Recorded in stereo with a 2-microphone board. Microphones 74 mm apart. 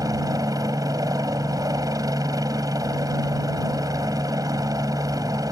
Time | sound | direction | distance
0.0 | a helicopter | 50° right (ahead or behind) | ?